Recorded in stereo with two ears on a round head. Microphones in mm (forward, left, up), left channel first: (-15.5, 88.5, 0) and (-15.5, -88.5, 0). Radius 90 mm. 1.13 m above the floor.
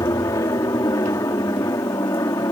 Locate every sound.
0.0 s an aircraft: 15° left (ahead or behind)